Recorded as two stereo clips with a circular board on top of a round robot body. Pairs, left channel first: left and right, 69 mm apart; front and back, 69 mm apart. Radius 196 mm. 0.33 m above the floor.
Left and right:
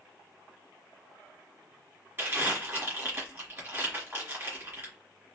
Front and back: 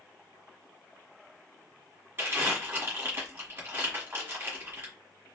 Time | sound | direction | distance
2.2 | crumpling | 135° right | 1.7 m